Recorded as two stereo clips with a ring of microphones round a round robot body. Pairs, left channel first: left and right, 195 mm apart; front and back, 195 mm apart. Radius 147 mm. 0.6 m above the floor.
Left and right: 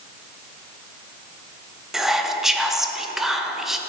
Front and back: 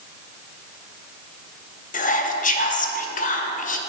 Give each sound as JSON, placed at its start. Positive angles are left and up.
{"t": 1.9, "sound": "whispering", "azimuth_deg": 0, "distance_m": 0.7}